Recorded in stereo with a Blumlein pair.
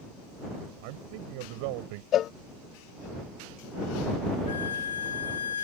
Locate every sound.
0.8 s a man speaking: 45° right
2.1 s a cowbell: 30° left
4.5 s a violin: 65° left